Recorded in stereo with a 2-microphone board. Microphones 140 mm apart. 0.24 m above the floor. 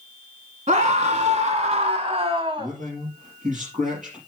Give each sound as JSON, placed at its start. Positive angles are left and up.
{"t": 0.7, "sound": "a scream", "side_deg": -60, "distance_m": 2.0}
{"t": 2.6, "sound": "a man speaking", "side_deg": -65, "distance_m": 5.0}